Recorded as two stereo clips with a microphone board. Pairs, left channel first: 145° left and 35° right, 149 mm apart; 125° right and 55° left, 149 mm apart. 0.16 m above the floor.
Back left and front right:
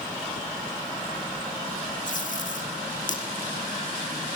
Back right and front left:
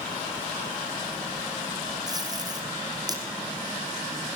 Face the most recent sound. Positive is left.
turn(degrees=120)